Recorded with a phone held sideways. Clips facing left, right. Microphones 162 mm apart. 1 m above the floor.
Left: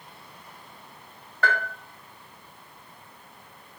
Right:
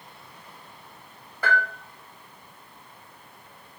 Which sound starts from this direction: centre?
A bell, at 1.4 s.